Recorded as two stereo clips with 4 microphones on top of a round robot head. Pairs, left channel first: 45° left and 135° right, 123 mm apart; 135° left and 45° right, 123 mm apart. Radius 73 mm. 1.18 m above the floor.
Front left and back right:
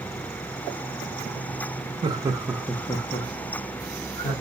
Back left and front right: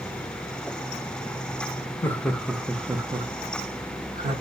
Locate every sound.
2.0 s laughter: 160° right, 0.6 m; by 4.3 s 15° left, 1.2 m